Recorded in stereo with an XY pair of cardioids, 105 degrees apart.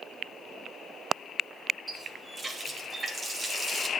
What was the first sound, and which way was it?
A running tap, 35° right.